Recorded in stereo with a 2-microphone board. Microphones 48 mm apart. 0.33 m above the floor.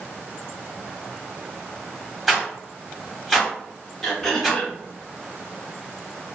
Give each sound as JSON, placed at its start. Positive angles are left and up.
{"t": 2.3, "sound": "a rattle", "side_deg": -5, "distance_m": 1.2}
{"t": 4.0, "sound": "throat clearing", "side_deg": 5, "distance_m": 1.1}